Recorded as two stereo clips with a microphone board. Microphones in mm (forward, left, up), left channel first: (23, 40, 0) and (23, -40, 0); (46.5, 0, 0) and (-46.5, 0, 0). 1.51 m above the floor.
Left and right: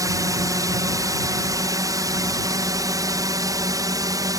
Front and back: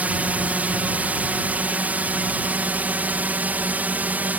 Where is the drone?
110° right.